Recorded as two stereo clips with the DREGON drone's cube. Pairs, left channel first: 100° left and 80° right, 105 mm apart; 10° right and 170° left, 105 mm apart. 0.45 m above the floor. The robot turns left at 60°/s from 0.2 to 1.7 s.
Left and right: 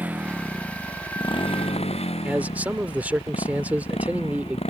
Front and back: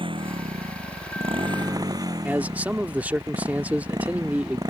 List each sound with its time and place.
0.0 s a motorcycle: 155° right; by 4.7 s 115° left
2.2 s a man speaking: 130° right